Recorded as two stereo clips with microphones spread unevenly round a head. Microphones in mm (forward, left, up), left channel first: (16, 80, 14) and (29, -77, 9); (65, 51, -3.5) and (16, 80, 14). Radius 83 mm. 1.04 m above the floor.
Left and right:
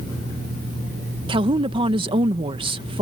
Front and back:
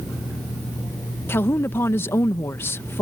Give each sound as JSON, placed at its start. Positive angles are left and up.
{"t": 1.3, "sound": "a woman speaking", "azimuth_deg": -35}